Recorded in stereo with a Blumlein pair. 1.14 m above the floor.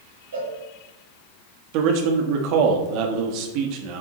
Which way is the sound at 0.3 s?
70° right.